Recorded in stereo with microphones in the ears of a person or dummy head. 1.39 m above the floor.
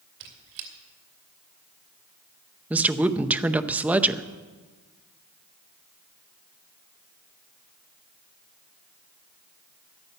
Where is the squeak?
60° right (ahead or behind), 2.0 m.